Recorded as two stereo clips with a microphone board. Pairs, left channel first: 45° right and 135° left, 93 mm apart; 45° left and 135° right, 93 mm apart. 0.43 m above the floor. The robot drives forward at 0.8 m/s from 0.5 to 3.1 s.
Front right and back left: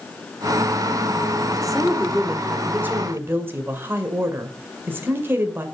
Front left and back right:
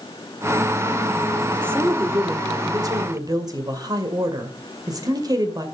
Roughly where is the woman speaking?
Behind right.